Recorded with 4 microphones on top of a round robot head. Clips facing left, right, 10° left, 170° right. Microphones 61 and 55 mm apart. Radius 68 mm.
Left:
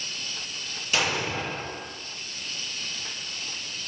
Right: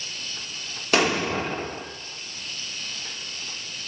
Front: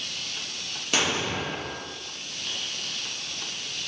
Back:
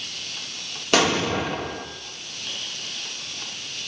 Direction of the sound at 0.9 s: 135° right.